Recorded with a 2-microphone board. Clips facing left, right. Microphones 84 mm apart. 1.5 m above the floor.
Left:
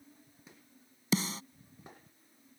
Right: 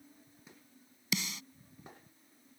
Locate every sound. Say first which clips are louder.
1.1 s a snare drum: left 7 dB; 35° left (ahead or behind)